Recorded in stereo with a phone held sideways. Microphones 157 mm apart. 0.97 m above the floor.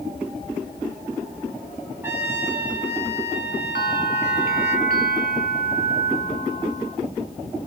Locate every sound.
2.0 s a trumpet: 15° right (ahead or behind), 2.0 m
3.8 s a bell: 70° left (ahead or behind), 0.7 m